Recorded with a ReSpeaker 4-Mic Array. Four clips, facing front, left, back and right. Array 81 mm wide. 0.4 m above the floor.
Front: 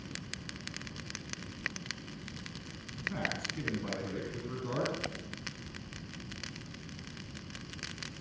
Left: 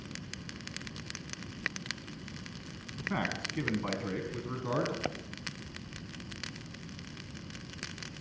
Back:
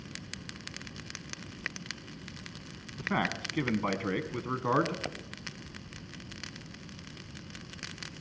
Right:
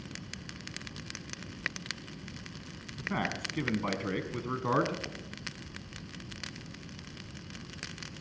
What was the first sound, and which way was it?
A man speaking, 175° left.